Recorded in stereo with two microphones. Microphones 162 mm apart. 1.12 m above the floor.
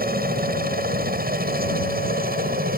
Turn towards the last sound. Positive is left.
turn(degrees=-75)  # may be behind; listen again after turning